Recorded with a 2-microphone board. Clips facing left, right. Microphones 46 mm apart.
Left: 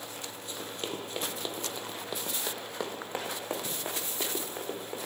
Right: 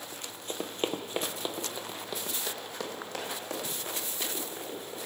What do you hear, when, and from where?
0.1 s running footsteps: 50° right (ahead or behind), 1.2 m; by 5.1 s 35° left (ahead or behind), 3 m